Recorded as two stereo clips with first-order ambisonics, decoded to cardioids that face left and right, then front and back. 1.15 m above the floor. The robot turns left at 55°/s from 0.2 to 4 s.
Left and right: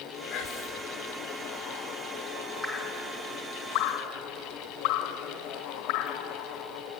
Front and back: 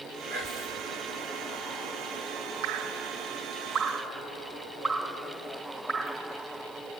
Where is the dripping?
165° left, 2 m; by 6.2 s 85° left, 2 m.